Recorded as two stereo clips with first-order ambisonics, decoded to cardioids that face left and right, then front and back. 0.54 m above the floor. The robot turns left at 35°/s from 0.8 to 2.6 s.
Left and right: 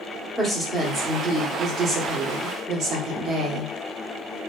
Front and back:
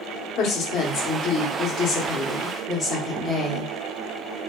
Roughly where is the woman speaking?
Ahead.